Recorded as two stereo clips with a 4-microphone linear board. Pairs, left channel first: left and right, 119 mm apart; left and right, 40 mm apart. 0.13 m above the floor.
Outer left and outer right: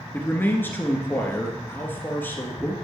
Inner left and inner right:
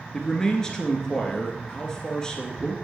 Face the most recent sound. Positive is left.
turn(degrees=15)  # may be behind; listen again after turning